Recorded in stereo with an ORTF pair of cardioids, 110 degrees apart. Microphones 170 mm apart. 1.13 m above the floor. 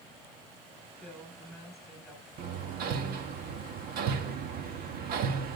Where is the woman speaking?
Straight ahead, 6 m.